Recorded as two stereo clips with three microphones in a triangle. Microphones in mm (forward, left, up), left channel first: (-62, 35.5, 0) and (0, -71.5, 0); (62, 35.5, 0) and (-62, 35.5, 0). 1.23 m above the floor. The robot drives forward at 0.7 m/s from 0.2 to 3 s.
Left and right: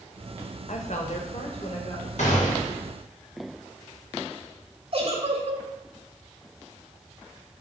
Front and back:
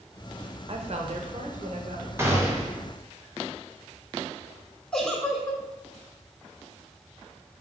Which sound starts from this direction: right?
A giggle, at 4.9 s.